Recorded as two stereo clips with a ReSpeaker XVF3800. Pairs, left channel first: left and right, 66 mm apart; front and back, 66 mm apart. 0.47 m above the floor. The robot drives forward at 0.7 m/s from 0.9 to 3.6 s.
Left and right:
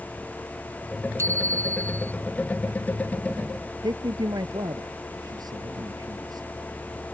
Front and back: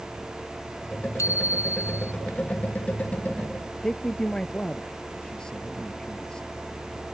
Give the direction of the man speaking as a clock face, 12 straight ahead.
3 o'clock.